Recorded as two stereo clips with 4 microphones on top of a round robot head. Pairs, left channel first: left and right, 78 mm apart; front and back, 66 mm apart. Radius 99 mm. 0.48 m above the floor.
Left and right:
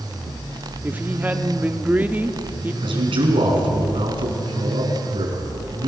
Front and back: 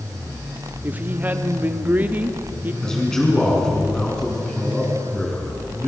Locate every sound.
0.8 s a woman speaking: 140° right, 1.5 m
2.8 s a man speaking: 85° right, 6 m